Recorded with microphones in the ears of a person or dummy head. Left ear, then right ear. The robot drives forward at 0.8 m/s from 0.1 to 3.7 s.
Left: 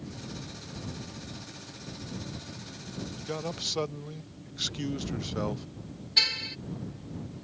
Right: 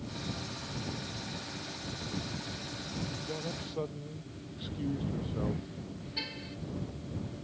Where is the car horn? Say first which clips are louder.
Left 15 dB; 80° left.